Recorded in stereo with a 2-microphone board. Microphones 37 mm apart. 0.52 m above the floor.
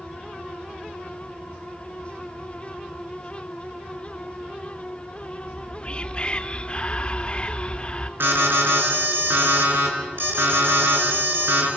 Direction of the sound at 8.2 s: 70° right (ahead or behind).